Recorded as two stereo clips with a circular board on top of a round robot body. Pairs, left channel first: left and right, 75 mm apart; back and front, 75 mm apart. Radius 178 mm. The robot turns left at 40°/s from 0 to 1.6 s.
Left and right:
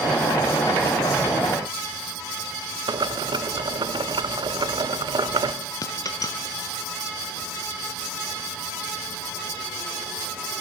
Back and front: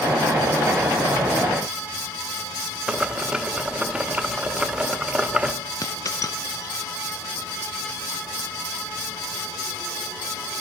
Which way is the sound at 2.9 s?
75° right.